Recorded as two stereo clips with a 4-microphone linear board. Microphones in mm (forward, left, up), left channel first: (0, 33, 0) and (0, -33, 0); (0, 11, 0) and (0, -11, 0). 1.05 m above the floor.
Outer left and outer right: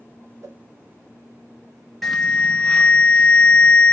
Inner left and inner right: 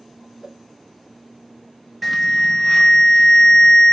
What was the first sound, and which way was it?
A whoosh, 45° right (ahead or behind).